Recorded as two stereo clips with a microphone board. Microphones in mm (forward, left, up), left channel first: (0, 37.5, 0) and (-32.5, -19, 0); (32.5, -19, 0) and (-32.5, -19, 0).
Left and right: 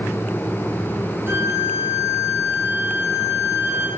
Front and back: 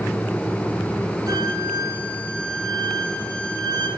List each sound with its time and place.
1.3 s a violin: 175° right, 5.5 m